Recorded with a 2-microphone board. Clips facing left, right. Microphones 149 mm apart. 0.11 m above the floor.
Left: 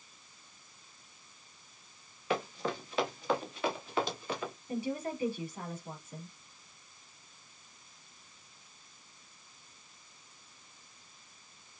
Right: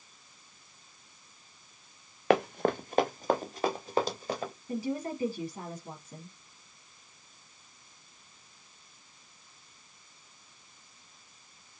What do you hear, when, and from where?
2.3 s running footsteps: 65° right (ahead or behind), 0.5 m; by 4.5 s 35° right (ahead or behind), 2 m
4.7 s a woman speaking: 35° right (ahead or behind), 2.5 m